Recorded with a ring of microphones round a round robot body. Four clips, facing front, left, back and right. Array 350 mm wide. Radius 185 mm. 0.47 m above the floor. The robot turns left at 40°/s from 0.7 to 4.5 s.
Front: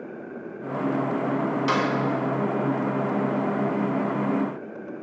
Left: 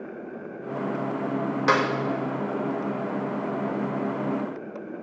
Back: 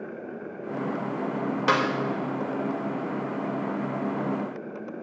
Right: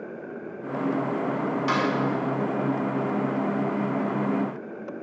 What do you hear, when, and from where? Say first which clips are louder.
1.7 s a snare drum: left 4 dB, back 2 dB; 125° left, 2.0 m; by 1.9 s 115° left, 2.0 m